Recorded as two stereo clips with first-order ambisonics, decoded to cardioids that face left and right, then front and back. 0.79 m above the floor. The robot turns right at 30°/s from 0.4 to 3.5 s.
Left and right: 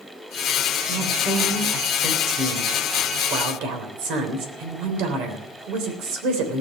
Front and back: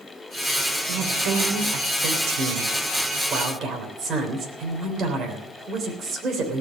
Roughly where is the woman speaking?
Behind.